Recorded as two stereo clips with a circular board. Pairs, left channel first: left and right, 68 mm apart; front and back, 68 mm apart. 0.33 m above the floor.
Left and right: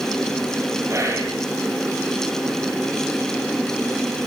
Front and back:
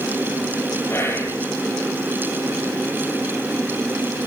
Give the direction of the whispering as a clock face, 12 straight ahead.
2 o'clock.